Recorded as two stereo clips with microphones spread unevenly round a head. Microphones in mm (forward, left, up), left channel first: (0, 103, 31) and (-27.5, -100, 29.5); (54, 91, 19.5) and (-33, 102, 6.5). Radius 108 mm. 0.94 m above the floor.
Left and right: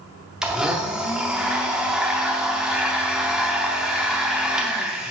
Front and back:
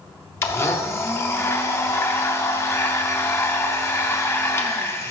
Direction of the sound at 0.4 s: 15° right.